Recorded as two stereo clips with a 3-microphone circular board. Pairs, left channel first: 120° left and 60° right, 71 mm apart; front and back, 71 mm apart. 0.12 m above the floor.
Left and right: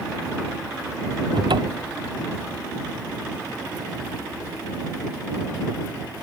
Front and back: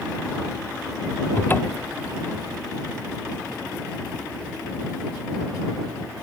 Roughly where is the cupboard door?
Ahead right.